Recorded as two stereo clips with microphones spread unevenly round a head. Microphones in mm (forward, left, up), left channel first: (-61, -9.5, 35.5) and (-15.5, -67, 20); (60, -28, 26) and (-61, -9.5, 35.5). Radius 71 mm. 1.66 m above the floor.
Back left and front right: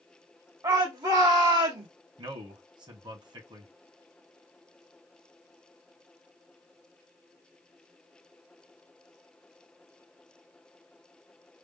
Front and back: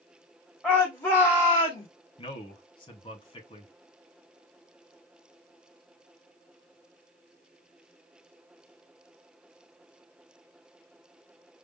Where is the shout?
90° right, 2.0 m; by 1.9 s 70° right, 2 m.